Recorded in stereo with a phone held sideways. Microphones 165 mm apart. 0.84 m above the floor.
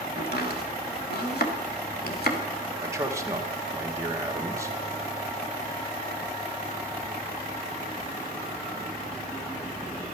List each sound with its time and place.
0.2 s chopping: 75° left (ahead or behind), 1.4 m
2.8 s a man speaking: 20° right (ahead or behind), 1.4 m